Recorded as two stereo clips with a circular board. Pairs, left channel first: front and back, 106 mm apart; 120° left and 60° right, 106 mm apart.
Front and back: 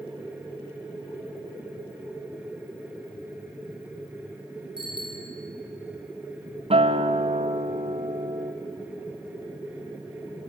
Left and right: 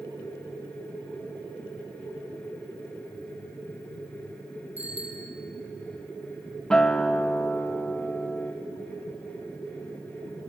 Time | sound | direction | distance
4.8 | a bicycle bell | 45° right | 3.5 m
6.7 | a guitar | 155° right | 1.6 m